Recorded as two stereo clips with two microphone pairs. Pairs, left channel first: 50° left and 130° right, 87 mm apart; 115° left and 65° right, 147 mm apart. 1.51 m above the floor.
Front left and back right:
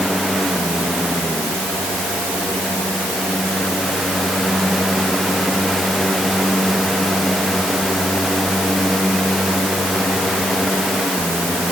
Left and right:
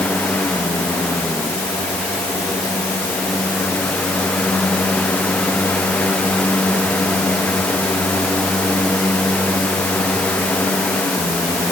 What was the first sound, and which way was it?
Only background noise.